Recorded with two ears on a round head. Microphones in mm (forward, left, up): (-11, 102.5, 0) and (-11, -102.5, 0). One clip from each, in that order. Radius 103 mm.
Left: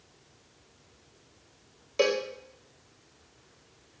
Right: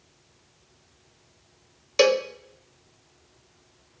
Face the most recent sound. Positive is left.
turn(degrees=-60)  # may be behind; listen again after turning